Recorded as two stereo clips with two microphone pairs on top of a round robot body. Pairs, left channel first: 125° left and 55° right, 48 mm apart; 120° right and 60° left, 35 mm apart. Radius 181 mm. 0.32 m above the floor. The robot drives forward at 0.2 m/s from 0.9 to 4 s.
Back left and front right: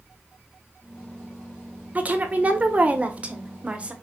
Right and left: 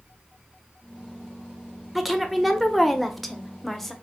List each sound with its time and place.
1.9 s a woman speaking: 20° right, 1.2 m; by 3.9 s 40° right, 1.0 m